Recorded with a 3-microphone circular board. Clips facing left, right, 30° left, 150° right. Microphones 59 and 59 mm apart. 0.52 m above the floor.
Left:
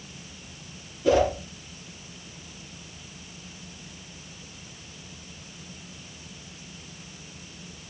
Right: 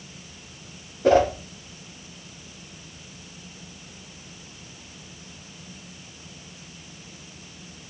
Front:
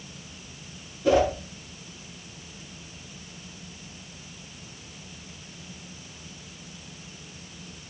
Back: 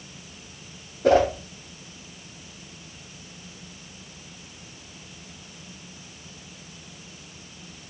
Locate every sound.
1.0 s a whoosh: 125° right, 3 m